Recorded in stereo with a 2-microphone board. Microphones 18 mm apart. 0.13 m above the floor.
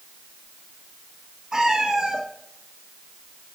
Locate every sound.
1.5 s a cat meowing: 50° right (ahead or behind), 2.5 m